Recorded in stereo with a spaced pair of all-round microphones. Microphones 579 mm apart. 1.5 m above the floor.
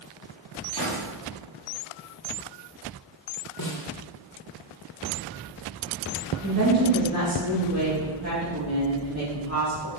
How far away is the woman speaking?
About 2.5 m.